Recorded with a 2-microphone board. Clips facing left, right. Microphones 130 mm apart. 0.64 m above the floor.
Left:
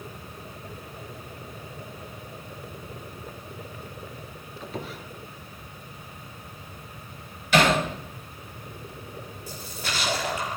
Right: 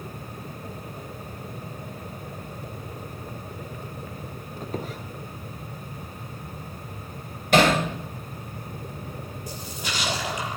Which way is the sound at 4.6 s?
40° right (ahead or behind).